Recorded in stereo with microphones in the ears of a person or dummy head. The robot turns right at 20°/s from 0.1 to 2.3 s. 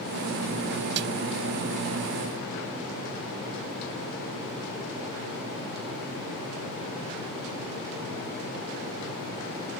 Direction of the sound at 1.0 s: 60° right (ahead or behind).